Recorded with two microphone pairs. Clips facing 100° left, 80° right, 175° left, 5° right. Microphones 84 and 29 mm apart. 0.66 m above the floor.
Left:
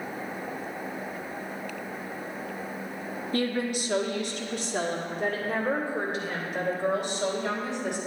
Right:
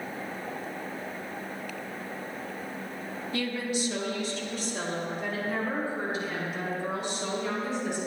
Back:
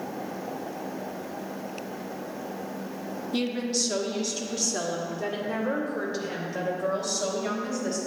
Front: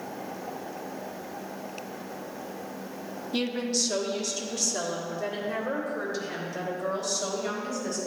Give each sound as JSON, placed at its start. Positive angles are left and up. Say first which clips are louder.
{"t": 3.3, "sound": "a woman speaking", "louder": "left 3 dB, even", "azimuth_deg": 80, "distance_m": 0.8}